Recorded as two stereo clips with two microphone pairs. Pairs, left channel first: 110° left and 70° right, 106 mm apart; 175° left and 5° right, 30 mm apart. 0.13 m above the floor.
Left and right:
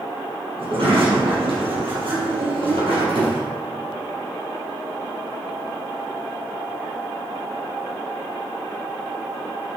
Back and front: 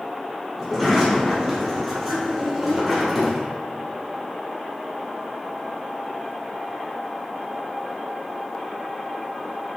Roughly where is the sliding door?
Right.